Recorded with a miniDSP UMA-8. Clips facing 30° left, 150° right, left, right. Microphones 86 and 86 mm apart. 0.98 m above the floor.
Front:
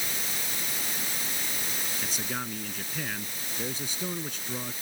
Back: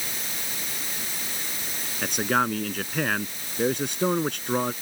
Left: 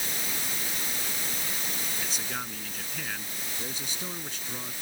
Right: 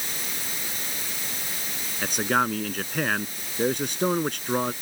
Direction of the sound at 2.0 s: 120° right.